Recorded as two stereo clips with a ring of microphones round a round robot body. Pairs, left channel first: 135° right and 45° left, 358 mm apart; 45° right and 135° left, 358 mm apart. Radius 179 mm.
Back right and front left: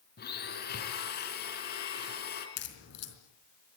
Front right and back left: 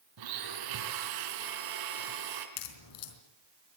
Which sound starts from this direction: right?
A crack, at 2.6 s.